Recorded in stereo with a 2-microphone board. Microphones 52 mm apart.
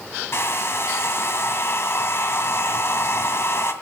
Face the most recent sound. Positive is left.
turn(degrees=55)  # may be behind; listen again after turning